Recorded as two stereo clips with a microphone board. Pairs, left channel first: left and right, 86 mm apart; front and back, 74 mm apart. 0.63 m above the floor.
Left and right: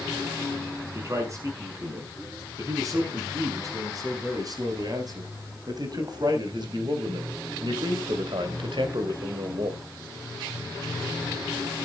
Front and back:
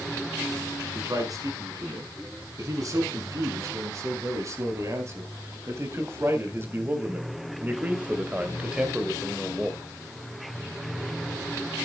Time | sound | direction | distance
0.9 | a man speaking | 145° right | 5.5 m